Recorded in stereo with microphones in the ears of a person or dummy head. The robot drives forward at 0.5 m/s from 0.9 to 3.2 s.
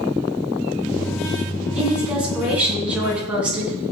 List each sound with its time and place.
1.8 s a woman speaking: 5° right (ahead or behind), 8.5 m; by 3.7 s 10° right (ahead or behind), 8 m